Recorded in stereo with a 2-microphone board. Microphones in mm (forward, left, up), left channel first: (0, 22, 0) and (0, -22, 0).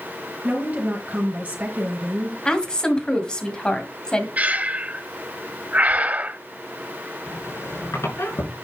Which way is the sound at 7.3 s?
85° left.